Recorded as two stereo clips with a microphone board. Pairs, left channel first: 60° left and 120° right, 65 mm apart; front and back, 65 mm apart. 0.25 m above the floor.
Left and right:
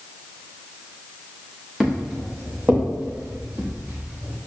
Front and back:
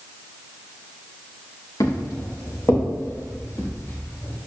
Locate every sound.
1.8 s footsteps: 30° right, 2.5 m; by 4.4 s 60° right, 6 m